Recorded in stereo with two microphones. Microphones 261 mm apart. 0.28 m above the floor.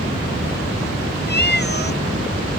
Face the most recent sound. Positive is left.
turn(degrees=40)  # may be behind; listen again after turning